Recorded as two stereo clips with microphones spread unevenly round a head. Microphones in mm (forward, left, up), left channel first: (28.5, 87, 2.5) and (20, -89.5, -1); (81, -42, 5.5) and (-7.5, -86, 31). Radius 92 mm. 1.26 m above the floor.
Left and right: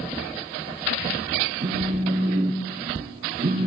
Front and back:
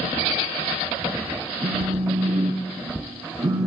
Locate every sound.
1.6 s a phone buzzing: 140° right, 0.9 m